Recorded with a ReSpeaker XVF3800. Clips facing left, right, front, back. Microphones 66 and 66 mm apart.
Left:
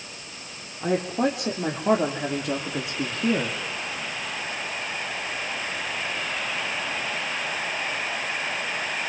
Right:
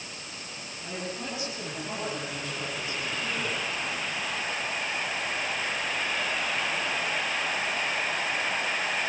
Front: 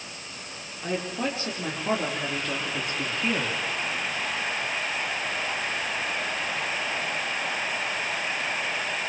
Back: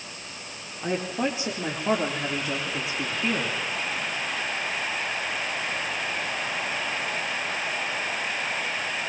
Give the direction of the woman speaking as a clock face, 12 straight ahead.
8 o'clock.